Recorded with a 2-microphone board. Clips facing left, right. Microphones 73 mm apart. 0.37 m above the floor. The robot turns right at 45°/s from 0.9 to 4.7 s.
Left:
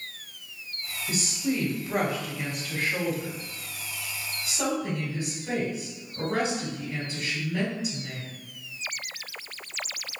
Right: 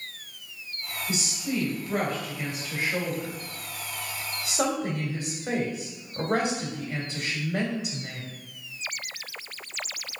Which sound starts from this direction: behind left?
A woman speaking, at 1.1 s.